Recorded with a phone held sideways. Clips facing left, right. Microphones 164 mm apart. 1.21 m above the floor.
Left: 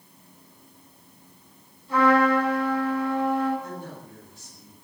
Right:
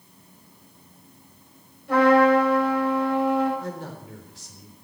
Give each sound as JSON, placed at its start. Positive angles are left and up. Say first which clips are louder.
{"t": 1.9, "sound": "a trumpet", "louder": "right 3 dB", "side_deg": -70, "distance_m": 7.0}
{"t": 3.6, "sound": "a man speaking", "louder": "right 3 dB", "side_deg": -85, "distance_m": 3.5}